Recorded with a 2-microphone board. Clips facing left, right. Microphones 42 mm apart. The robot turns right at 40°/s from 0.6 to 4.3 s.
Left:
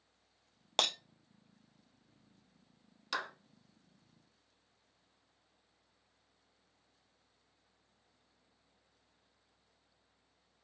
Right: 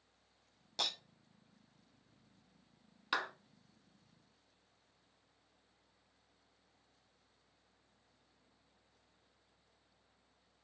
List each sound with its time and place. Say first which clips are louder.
0.8 s breaking glass: left 7 dB; 85° left, 0.5 m; by 0.9 s 80° left, 0.5 m
3.1 s a clap: right 2 dB; 20° right (ahead or behind), 1.1 m; by 3.3 s 25° right (ahead or behind), 1.1 m